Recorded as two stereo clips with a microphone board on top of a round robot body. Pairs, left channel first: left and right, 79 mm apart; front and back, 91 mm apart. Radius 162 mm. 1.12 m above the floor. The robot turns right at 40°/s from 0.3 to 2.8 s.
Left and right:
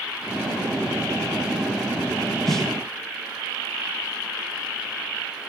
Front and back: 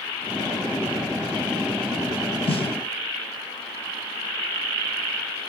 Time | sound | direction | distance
2.5 | a snare drum | straight ahead | 0.9 m